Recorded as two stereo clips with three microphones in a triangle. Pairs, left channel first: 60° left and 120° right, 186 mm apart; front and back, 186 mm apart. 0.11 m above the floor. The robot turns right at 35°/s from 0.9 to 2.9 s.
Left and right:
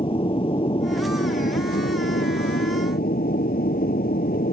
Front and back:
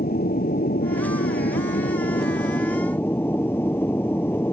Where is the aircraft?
5° left; by 4.5 s 75° left.